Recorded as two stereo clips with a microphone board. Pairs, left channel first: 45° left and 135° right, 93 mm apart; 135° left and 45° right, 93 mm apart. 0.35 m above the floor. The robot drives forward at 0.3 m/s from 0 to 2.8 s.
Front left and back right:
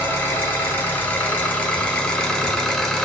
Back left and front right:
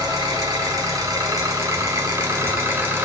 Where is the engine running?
15° right, 1.6 m; by 3.1 s 40° right, 1.1 m.